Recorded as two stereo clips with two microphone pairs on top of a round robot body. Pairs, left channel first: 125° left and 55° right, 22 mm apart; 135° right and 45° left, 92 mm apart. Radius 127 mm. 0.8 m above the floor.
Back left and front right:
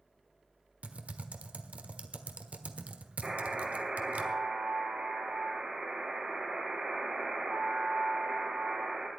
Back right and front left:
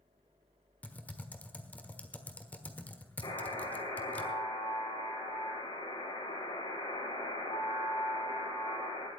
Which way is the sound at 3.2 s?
100° right.